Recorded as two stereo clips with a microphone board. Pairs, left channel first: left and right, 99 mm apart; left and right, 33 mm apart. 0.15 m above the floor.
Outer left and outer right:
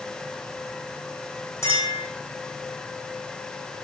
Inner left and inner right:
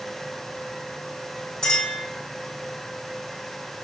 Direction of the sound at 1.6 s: 25° left (ahead or behind).